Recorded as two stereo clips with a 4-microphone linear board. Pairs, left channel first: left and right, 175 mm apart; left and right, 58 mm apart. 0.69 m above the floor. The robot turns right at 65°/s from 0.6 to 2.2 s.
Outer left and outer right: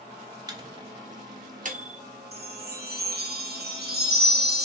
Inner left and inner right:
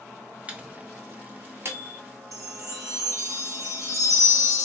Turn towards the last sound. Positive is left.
turn(degrees=-70)  # may be behind; listen again after turning